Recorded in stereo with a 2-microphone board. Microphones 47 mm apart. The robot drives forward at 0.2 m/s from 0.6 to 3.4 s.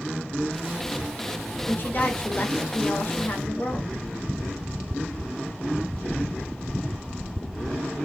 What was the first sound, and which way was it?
A woman speaking, 45° left (ahead or behind).